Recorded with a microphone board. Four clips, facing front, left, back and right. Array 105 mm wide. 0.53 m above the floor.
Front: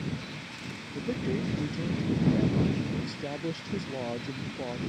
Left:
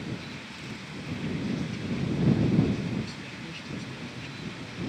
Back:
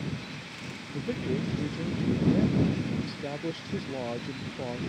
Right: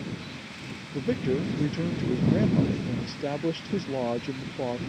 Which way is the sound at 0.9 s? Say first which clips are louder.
Right 8 dB, even; 85° right.